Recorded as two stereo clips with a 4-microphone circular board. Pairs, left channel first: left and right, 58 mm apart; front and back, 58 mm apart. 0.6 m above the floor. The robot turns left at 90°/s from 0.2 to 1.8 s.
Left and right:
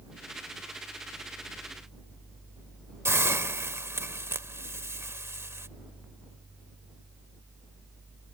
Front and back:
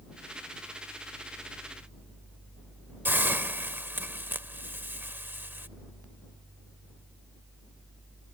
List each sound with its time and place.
3.0 s a hiss: 130° right